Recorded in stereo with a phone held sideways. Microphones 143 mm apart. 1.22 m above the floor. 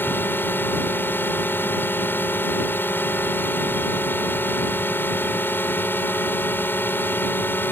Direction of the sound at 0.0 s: 15° left (ahead or behind).